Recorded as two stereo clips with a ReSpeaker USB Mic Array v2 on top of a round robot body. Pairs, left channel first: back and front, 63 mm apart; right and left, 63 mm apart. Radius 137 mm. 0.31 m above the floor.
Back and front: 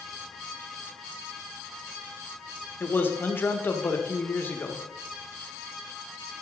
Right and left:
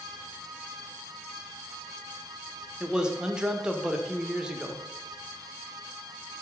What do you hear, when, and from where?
2.8 s a man speaking: 155° left, 1.5 m